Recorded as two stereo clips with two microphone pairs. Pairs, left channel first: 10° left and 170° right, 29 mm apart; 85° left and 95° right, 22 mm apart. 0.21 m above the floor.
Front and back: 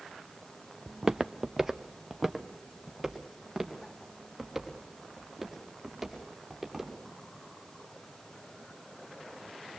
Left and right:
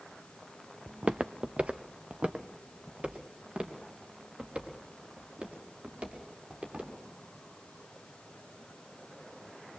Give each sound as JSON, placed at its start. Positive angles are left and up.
{"t": 0.9, "sound": "footsteps", "azimuth_deg": -95, "distance_m": 0.6}